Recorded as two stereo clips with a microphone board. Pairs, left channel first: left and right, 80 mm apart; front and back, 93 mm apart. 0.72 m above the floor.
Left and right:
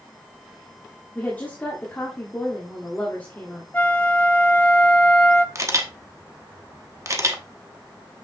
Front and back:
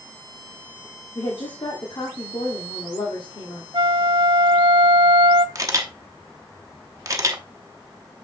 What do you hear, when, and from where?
1.1 s a woman speaking: 25° left, 1.6 m
3.7 s a flute: 155° left, 0.6 m
5.5 s a camera shutter: 130° right, 1.0 m